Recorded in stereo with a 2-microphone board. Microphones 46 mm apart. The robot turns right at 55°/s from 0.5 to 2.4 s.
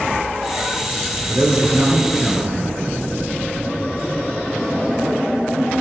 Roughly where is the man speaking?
Ahead right.